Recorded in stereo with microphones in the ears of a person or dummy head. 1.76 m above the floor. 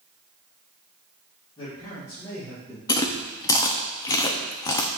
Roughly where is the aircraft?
No aircraft in this recording.